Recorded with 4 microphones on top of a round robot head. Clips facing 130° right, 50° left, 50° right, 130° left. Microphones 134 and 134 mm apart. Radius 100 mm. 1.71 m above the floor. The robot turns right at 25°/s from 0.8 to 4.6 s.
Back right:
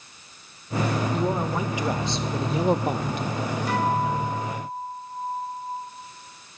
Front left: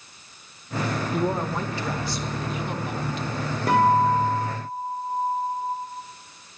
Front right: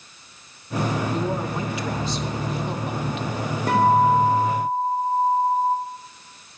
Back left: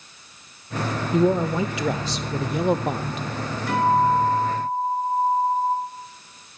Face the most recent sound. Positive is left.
turn(degrees=25)